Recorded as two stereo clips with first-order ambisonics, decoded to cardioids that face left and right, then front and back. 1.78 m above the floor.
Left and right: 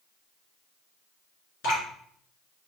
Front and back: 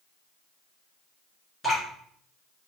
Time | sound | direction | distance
1.6 | dripping | 80° left | 3 m